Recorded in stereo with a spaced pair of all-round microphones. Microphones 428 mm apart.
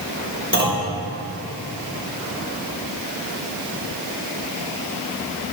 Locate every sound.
0.5 s a clunk: 25° right (ahead or behind), 4 m